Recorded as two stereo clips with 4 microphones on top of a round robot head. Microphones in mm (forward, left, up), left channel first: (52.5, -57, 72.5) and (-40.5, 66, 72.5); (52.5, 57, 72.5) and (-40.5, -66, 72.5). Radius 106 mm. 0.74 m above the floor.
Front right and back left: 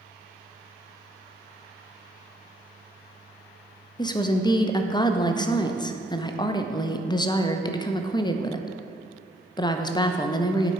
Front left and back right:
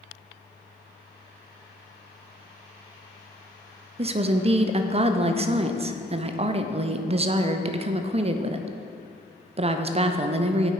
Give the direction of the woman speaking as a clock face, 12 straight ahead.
3 o'clock.